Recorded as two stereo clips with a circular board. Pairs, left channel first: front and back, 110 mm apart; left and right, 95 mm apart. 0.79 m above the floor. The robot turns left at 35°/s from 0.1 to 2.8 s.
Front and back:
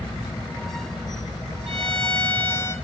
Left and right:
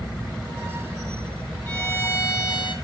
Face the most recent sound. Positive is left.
turn(degrees=130)